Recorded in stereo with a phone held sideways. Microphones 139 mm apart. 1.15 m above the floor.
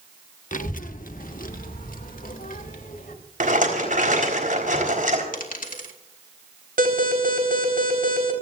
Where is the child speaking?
60° left (ahead or behind), 1.0 m; by 3.1 s 70° left (ahead or behind), 3.5 m.